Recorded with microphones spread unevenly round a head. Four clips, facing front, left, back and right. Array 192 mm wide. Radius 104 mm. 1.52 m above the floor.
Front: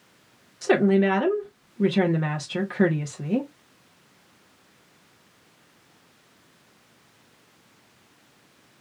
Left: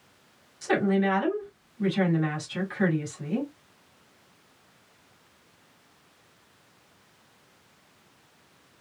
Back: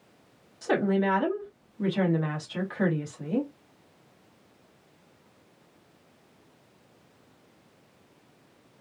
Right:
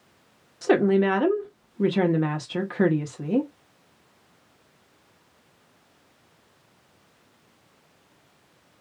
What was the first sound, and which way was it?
A woman speaking, 55° right.